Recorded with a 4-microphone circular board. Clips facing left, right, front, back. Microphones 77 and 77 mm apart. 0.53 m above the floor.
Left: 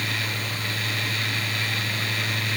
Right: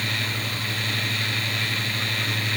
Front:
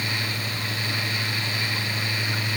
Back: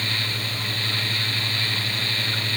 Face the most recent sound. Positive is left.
No sound to turn to.